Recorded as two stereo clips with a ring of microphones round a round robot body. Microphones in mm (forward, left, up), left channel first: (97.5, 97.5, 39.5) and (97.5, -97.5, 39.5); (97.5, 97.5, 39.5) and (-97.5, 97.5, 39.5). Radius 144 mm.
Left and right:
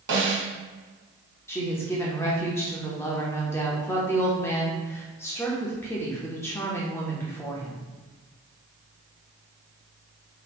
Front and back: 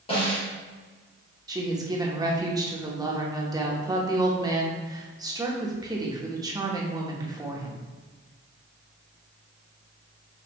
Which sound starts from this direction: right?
A snare drum, at 0.1 s.